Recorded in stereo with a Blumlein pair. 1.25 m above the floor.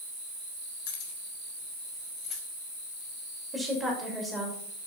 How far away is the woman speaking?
About 5.5 m.